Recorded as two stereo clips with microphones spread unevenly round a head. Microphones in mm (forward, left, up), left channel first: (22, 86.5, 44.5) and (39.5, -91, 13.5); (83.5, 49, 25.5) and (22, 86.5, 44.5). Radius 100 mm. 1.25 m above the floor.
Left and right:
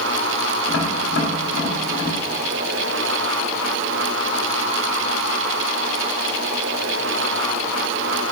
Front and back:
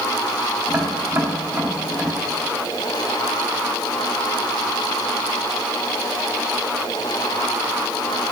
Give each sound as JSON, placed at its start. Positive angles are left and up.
{"t": 0.7, "sound": "tapping", "azimuth_deg": 95, "distance_m": 4.0}